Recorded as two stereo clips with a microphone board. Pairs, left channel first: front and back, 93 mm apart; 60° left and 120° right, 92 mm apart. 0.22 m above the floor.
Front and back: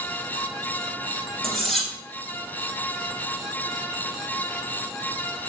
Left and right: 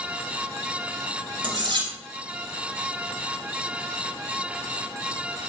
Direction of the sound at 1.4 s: 85° right.